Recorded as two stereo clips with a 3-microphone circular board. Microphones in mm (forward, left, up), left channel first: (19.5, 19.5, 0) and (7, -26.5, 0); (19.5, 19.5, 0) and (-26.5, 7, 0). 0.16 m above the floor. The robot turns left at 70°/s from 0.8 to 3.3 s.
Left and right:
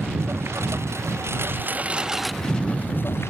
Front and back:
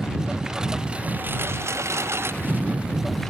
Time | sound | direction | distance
0.0 | a lawn mower | 90° right | ?